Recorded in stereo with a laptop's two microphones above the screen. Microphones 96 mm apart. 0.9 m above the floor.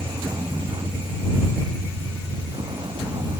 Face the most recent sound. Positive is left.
turn(degrees=-50)  # may be behind; listen again after turning